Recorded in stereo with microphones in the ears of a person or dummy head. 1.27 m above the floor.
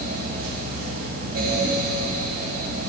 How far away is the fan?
About 1.7 m.